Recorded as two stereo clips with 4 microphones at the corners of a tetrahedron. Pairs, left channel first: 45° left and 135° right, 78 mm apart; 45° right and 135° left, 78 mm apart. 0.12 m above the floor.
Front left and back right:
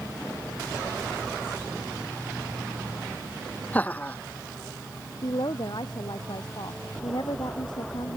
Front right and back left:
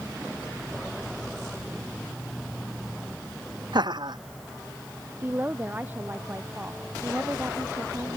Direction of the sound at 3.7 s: 115° left.